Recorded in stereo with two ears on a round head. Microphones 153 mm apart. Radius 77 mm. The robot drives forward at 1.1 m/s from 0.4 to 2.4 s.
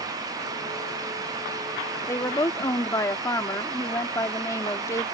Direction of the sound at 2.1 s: 15° left (ahead or behind).